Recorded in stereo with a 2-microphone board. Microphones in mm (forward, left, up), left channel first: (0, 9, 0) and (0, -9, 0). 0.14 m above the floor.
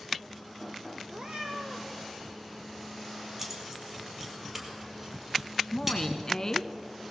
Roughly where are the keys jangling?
Centre.